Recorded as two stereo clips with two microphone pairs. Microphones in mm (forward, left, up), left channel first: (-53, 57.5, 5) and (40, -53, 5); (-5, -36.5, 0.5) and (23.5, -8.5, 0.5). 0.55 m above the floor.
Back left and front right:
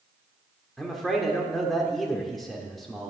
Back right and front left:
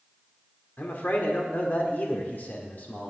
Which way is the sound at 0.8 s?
140° right.